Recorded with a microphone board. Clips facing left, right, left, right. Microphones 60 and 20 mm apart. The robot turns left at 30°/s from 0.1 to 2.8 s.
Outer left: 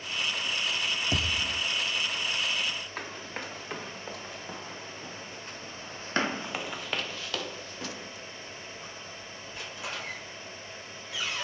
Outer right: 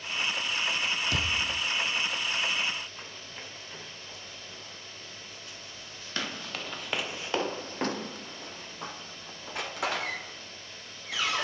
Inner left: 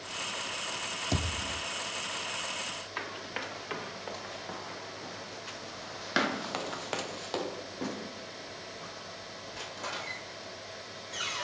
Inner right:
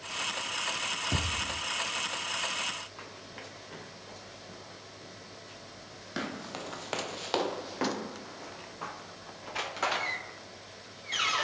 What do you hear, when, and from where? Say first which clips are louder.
1.1 s a thud: even, inner right 1 dB; 25° left (ahead or behind), 3 m; by 1.6 s 5° left (ahead or behind), 3 m
3.0 s running footsteps: outer left 6 dB, inner left 8 dB; 70° left (ahead or behind), 2 m; by 11.4 s 85° right, 2.5 m